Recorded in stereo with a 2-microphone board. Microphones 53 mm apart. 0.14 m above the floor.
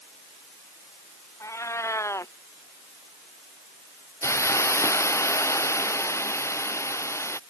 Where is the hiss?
65° left (ahead or behind).